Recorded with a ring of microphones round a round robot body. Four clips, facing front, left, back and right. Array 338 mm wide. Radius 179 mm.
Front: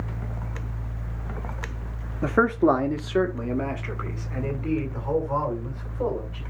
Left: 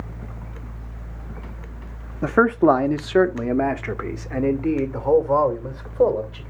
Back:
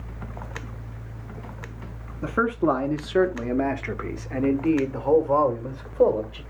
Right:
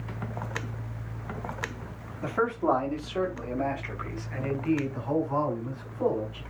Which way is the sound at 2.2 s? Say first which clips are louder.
Left 10 dB, front 3 dB; 65° left.